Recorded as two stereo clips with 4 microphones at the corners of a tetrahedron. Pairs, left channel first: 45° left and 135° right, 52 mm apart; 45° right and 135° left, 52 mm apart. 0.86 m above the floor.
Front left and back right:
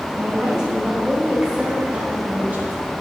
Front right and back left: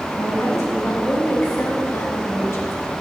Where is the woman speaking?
60° right, 5 m; by 2.8 s 80° right, 3 m.